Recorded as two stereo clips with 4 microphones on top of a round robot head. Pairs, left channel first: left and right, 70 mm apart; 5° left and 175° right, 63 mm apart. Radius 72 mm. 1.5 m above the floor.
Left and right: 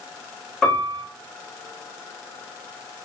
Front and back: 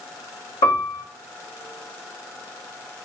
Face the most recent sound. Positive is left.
turn(degrees=10)